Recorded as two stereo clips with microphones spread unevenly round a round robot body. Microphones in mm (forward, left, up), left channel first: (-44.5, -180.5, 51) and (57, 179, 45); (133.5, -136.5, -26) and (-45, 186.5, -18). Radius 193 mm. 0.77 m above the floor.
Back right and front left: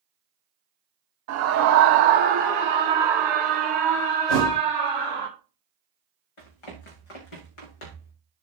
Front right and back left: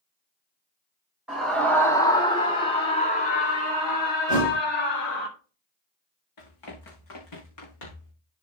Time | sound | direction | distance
1.3 | a scream | 30° left | 2 m
4.3 | a thud | 135° right | 6 m
6.4 | running footsteps | 100° right | 4 m